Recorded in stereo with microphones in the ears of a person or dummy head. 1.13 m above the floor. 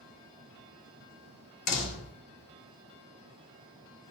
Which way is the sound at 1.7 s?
55° left (ahead or behind).